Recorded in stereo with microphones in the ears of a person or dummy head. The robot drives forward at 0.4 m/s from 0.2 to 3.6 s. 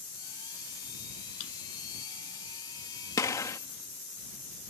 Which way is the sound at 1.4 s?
70° left (ahead or behind).